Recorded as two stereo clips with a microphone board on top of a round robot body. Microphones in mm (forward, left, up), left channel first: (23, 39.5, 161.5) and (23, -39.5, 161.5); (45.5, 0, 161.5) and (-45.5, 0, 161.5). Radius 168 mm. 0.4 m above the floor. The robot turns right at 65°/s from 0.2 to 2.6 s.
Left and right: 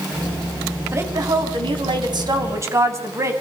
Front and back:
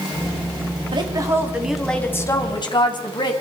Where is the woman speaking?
145° right, 4 m; by 3.3 s 35° right, 4 m.